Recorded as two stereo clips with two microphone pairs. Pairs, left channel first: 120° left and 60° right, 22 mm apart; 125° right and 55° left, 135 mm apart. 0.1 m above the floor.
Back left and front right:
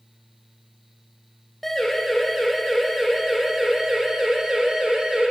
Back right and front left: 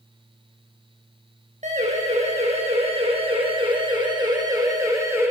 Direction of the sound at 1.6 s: 40° left.